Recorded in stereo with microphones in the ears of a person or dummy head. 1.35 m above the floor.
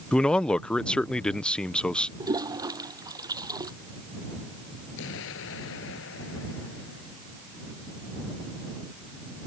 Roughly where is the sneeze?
I don't hear a sneeze.